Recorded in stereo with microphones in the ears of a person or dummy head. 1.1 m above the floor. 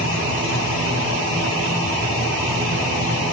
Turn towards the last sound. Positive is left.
No sound to turn to.